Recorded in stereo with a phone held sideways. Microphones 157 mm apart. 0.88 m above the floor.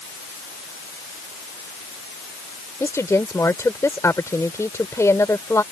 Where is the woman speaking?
20° left (ahead or behind).